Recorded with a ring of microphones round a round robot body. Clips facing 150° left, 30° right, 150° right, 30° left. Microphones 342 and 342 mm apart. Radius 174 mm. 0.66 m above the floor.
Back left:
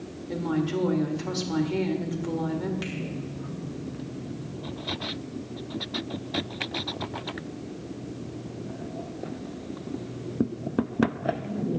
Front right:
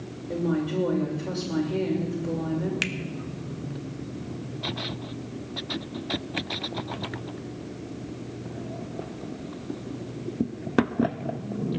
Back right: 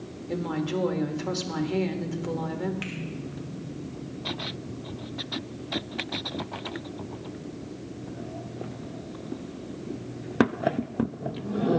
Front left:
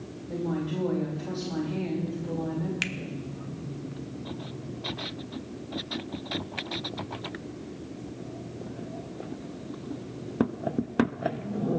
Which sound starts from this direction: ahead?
A finger snap, at 2.8 s.